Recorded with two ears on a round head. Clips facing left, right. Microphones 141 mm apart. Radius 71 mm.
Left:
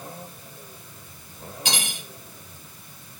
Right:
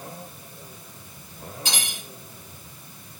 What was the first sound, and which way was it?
Cutlery clinking, 55° left (ahead or behind).